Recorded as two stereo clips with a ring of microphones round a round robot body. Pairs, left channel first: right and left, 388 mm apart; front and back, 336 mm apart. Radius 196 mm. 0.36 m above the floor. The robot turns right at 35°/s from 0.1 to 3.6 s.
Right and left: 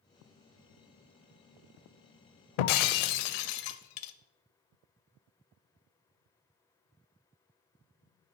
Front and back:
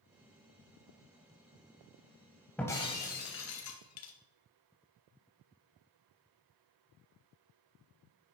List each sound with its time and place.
2.6 s breaking glass: 85° right, 0.5 m; by 4.1 s 50° right, 0.5 m